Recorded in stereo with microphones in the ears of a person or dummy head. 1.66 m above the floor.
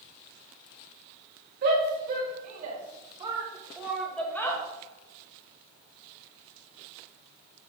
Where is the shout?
55° right (ahead or behind), 3 m; by 4.6 s 25° left (ahead or behind), 1.5 m.